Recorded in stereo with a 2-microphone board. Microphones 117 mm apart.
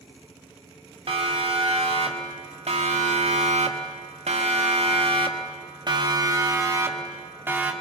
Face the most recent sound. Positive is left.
turn(degrees=-15)  # may be behind; listen again after turning